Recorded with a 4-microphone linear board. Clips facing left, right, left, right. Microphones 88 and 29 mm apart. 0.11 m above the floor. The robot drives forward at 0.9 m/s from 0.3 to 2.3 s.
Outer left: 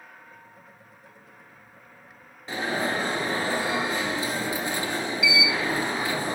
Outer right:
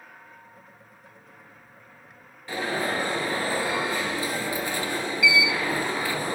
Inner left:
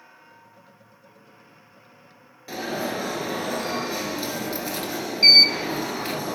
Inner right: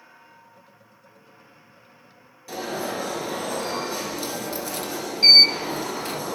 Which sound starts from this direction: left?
An alarm, at 2.5 s.